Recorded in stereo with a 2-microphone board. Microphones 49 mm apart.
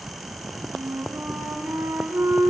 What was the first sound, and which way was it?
A flute, 85° right.